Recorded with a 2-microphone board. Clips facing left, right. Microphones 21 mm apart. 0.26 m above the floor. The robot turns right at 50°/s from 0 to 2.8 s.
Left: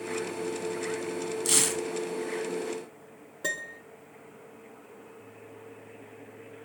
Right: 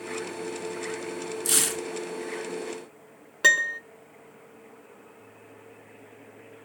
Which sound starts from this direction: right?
A piano, at 3.4 s.